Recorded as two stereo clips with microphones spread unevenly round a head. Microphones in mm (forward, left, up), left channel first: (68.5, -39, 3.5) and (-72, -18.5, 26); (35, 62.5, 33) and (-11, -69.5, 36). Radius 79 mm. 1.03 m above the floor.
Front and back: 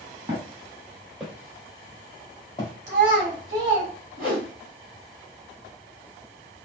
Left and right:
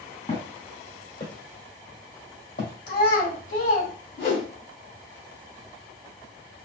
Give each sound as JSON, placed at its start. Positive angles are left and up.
{"t": 0.3, "sound": "footsteps", "azimuth_deg": 115, "distance_m": 1.6}
{"t": 2.9, "sound": "a child speaking", "azimuth_deg": 100, "distance_m": 1.7}
{"t": 4.2, "sound": "a whoosh", "azimuth_deg": 85, "distance_m": 2.0}